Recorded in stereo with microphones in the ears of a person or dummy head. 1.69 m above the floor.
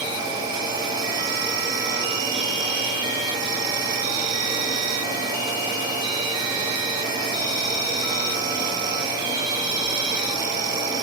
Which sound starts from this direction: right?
An insect, at 0.0 s.